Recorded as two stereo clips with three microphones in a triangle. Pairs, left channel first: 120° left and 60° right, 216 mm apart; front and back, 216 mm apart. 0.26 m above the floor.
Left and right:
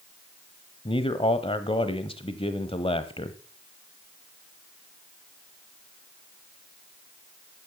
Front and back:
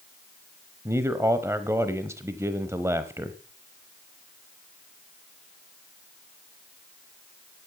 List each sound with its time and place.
0.8 s a man speaking: 120° left, 1.0 m